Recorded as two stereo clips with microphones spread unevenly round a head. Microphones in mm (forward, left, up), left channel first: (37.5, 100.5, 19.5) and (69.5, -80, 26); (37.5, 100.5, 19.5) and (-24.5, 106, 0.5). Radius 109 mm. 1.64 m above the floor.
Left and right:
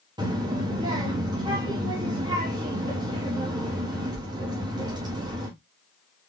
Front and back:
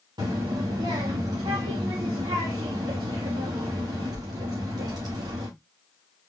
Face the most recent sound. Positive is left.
turn(degrees=-145)